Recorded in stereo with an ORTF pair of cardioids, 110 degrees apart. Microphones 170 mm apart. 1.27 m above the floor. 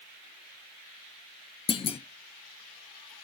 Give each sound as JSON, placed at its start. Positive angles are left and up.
{"t": 1.7, "sound": "a clunk", "azimuth_deg": 30, "distance_m": 0.6}